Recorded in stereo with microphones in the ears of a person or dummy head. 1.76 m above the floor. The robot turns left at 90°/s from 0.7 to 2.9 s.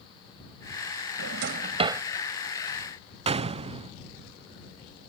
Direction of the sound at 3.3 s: 35° right (ahead or behind).